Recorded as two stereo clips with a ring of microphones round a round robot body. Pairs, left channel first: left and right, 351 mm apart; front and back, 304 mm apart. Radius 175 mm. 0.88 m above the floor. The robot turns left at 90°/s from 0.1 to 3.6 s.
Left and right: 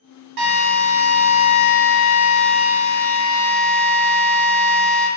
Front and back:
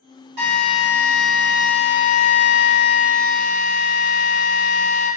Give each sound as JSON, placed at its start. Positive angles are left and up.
{"t": 0.4, "sound": "a drill", "azimuth_deg": -120, "distance_m": 1.5}